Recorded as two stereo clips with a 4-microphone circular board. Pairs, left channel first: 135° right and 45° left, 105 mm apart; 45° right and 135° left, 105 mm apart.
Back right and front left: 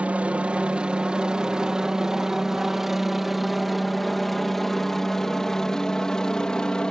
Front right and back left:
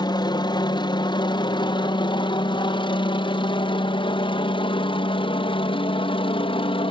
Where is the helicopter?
25° right; by 6.9 s 55° right.